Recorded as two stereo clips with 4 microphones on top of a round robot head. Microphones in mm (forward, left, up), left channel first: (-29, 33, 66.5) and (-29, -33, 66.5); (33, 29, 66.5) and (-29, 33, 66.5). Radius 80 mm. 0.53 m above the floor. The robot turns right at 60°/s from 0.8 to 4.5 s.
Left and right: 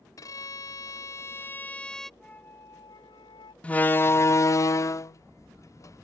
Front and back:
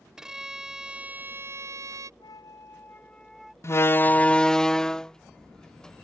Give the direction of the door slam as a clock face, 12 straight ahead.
11 o'clock.